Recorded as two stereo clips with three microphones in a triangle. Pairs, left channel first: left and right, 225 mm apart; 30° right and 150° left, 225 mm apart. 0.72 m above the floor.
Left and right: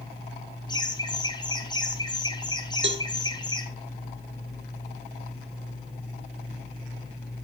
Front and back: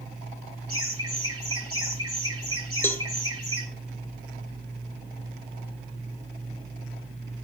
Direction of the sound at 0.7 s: 160° left.